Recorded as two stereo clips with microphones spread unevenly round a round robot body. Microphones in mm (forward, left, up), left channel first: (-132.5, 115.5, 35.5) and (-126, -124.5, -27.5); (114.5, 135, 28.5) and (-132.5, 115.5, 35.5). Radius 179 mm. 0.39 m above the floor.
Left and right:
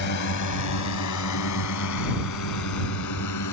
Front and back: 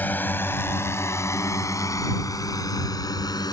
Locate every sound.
0.0 s a drone: 85° left; by 3.5 s 80° left